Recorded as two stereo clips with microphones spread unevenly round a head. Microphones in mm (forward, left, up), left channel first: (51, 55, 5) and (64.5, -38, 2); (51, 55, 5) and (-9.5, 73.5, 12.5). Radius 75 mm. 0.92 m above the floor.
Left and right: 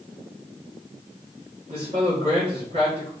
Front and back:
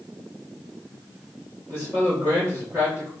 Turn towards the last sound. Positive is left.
turn(degrees=-125)